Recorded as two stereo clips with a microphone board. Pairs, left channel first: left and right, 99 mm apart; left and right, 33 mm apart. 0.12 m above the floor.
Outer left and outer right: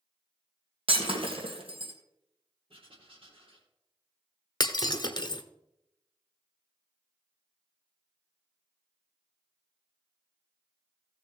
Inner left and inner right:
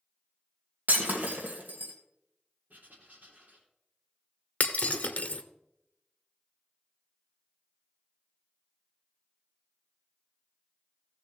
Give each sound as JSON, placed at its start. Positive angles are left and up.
{"t": 0.9, "sound": "breaking glass", "side_deg": -65, "distance_m": 2.5}
{"t": 2.7, "sound": "writing", "side_deg": -60, "distance_m": 3.0}
{"t": 4.6, "sound": "breaking glass", "side_deg": 45, "distance_m": 0.9}